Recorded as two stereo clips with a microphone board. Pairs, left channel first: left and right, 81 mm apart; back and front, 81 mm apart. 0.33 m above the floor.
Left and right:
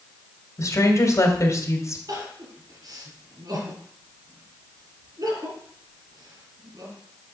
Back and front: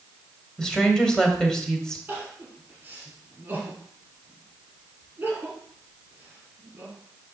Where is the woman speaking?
105° left, 1.7 m.